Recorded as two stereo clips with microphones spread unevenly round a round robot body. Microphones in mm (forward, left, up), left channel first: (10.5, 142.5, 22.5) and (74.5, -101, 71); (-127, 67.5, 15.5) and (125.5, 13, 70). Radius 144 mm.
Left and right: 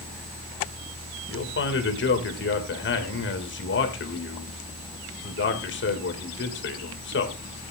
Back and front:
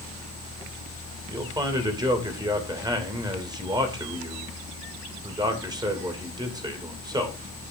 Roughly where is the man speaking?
Ahead left.